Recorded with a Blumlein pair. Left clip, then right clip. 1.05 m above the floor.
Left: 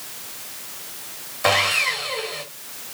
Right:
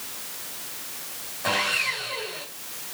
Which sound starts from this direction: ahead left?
Sawing, at 1.4 s.